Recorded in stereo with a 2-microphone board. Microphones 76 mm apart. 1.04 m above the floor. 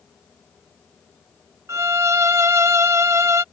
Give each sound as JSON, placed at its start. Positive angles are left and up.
{"t": 1.7, "sound": "a violin", "side_deg": -40}